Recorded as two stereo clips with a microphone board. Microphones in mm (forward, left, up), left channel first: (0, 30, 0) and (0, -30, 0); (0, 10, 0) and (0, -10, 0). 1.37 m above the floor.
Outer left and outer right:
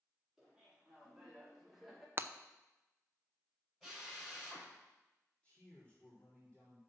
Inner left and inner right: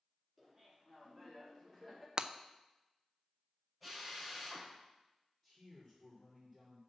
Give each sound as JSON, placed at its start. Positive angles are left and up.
{"t": 0.4, "sound": "laughter", "side_deg": -5, "distance_m": 4.0}
{"t": 2.2, "sound": "breaking glass", "side_deg": -40, "distance_m": 0.6}
{"t": 3.8, "sound": "a drill", "side_deg": 0, "distance_m": 5.5}
{"t": 5.4, "sound": "a man speaking", "side_deg": 20, "distance_m": 4.0}